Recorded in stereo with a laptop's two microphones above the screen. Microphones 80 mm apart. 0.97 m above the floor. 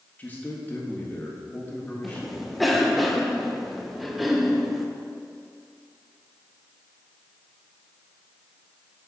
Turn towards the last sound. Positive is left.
turn(degrees=0)  # may be behind; listen again after turning